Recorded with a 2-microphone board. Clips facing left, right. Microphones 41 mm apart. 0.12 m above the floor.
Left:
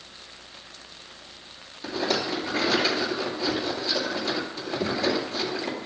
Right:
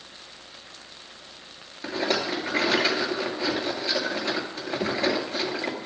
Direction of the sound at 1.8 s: 30° right (ahead or behind).